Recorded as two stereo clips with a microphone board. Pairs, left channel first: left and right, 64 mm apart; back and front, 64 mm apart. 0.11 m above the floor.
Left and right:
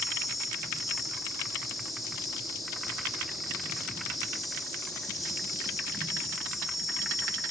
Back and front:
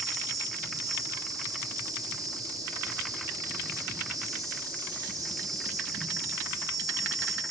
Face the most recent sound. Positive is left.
turn(degrees=0)